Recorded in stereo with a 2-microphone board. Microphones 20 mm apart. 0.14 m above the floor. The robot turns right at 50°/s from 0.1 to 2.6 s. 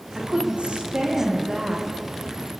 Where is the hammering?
I don't hear hammering.